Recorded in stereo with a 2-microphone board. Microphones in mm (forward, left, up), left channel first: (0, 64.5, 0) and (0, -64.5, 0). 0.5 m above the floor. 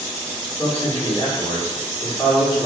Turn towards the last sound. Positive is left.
turn(degrees=20)  # may be behind; listen again after turning